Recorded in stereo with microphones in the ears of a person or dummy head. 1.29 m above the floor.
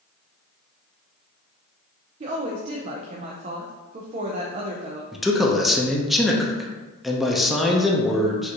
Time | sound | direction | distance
2.2 | a woman speaking | 30° right (ahead or behind) | 0.5 m
5.1 | a man speaking | centre (ahead or behind) | 0.5 m